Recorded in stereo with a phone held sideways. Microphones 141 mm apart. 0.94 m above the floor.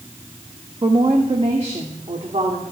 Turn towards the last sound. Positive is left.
turn(degrees=-55)  # may be behind; listen again after turning